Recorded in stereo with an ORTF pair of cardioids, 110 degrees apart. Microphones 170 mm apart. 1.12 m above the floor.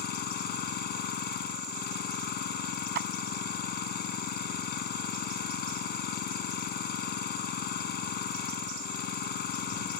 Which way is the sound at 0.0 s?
70° left.